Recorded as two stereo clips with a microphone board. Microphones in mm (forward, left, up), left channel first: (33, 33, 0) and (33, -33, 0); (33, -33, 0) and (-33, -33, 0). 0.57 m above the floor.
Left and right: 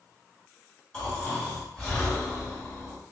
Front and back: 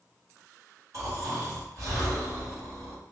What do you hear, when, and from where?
0.9 s snoring: 160° left, 1.7 m